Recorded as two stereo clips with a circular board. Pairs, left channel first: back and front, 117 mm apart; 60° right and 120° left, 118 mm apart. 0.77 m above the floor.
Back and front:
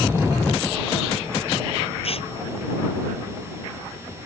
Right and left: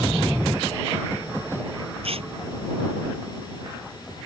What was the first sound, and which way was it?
Tearing paper, 150° left.